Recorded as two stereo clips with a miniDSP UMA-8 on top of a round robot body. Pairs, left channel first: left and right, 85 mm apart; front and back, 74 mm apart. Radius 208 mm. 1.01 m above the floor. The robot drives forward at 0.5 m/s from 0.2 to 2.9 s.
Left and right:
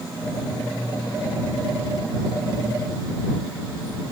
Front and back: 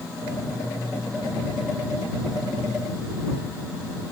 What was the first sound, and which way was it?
Only background noise.